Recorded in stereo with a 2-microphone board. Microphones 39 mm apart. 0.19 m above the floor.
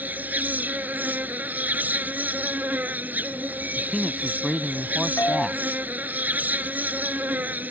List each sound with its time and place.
0.0 s an insect: 50° right (ahead or behind)
3.8 s a man speaking: 10° right (ahead or behind)
5.2 s a doorbell: 85° left